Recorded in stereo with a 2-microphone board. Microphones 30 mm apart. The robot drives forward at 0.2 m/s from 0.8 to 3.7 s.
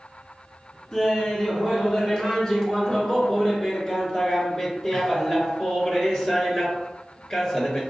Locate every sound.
0.9 s laughter: 20° left (ahead or behind), 1.3 m; by 7.8 s 15° left (ahead or behind), 1.6 m